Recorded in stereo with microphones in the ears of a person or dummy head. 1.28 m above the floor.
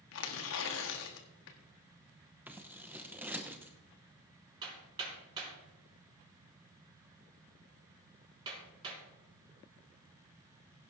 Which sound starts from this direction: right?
Hammering, at 4.6 s.